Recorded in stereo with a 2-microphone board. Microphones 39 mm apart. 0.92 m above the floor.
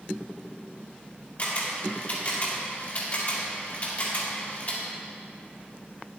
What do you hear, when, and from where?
1.4 s a camera shutter: 40° left (ahead or behind), 1.9 m